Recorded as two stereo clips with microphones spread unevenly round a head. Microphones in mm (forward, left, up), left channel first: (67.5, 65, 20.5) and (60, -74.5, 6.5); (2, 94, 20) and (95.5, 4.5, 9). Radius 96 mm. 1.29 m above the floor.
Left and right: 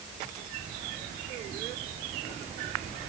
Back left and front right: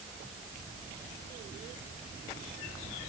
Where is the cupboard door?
No cupboard door in this recording.